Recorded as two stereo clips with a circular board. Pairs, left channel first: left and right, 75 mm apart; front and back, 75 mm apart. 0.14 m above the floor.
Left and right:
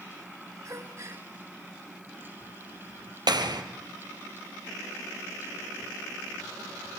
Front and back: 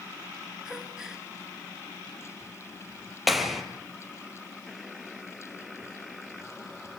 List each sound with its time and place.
0.7 s a gasp: 100° right, 2 m
3.3 s a clap: 90° right, 2.5 m